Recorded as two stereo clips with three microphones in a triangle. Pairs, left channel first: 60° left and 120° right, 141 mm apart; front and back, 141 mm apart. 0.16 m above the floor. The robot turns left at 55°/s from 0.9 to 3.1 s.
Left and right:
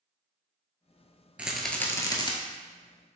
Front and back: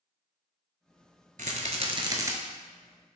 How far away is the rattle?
About 0.6 m.